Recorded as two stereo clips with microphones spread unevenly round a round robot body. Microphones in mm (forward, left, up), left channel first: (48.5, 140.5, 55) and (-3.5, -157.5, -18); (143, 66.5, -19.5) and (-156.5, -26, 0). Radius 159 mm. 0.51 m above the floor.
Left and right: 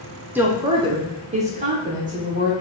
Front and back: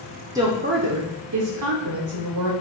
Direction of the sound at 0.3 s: 90° right.